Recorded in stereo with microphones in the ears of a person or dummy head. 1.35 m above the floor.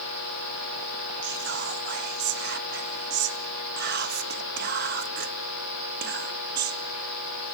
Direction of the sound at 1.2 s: 55° right (ahead or behind).